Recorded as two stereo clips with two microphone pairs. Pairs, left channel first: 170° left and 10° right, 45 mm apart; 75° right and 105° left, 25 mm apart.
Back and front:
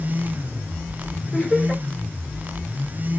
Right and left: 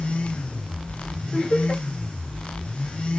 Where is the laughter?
110° right, 4 m.